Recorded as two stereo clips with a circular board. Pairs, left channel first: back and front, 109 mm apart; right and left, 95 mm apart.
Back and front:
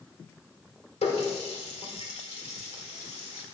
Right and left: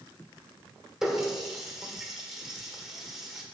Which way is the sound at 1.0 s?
175° left.